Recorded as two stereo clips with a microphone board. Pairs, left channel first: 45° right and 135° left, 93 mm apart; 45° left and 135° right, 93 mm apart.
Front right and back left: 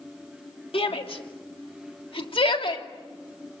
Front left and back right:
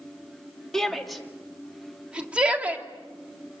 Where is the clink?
I don't hear a clink.